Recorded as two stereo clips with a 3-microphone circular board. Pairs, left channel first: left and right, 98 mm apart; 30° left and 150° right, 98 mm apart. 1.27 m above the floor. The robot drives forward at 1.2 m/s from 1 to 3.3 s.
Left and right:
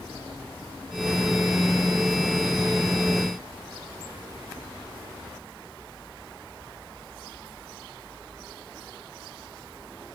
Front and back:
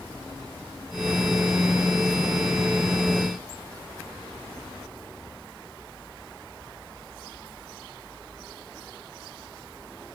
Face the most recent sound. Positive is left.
No sound to turn to.